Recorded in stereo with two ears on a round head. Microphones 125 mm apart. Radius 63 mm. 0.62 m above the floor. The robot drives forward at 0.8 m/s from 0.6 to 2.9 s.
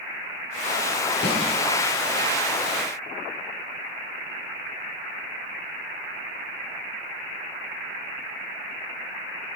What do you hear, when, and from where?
1.2 s a snare drum: 80° left, 8 m